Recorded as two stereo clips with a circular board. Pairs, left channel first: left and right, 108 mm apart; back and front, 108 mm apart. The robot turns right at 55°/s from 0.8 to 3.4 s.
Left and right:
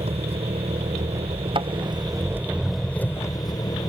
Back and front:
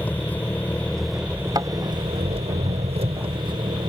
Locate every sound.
0.0 s an engine running: 105° right; by 3.9 s 35° left
1.6 s a thud: 55° right; by 1.7 s 45° right